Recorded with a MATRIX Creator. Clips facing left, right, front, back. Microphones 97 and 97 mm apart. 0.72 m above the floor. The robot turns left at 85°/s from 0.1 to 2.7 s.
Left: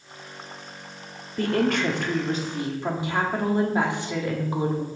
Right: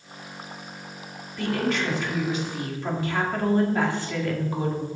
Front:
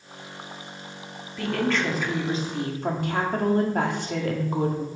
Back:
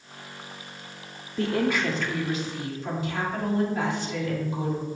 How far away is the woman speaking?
About 1.7 m.